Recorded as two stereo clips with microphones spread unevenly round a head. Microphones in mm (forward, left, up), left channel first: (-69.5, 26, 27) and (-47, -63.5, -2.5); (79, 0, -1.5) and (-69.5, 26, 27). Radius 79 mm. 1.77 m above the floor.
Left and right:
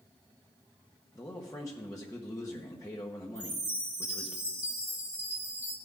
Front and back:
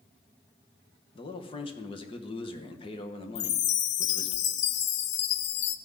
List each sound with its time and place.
1.1 s a man speaking: 50° left, 1.2 m
3.4 s a chime: 5° left, 0.8 m